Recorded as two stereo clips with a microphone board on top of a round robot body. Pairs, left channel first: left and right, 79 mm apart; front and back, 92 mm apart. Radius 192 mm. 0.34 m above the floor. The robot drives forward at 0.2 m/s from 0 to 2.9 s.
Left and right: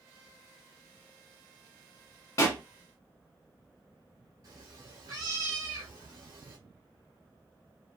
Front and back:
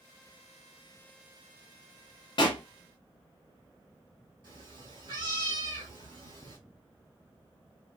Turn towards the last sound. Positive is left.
turn(degrees=-140)